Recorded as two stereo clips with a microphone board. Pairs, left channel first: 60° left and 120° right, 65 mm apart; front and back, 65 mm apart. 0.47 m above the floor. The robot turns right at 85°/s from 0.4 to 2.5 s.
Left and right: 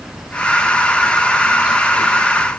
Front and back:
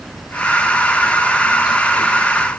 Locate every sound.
Only background noise.